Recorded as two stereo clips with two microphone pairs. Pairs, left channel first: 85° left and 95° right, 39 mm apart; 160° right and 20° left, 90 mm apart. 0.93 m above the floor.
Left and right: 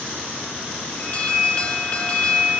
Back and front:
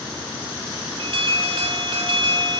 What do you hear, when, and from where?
1.0 s an alarm: 25° left, 2.5 m